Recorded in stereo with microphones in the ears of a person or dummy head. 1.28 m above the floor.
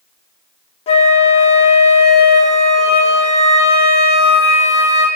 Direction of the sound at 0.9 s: 35° left (ahead or behind).